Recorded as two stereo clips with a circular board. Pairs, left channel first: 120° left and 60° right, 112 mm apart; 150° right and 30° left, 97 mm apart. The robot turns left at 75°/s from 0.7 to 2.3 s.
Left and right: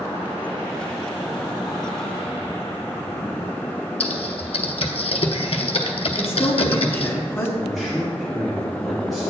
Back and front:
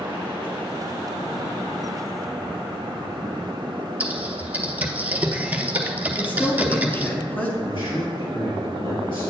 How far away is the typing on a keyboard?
About 0.7 m.